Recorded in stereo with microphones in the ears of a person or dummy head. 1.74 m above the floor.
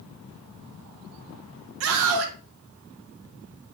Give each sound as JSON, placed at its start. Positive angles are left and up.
{"t": 1.8, "sound": "a scream", "side_deg": -80, "distance_m": 1.3}